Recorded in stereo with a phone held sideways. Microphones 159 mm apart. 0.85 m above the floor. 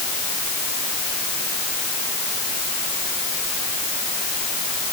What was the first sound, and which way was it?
Only background noise.